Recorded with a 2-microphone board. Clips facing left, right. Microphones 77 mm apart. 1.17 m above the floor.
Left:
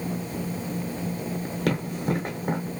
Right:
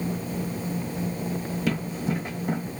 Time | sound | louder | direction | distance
1.7 | running footsteps | left 2 dB | 60° left (ahead or behind) | 2.5 m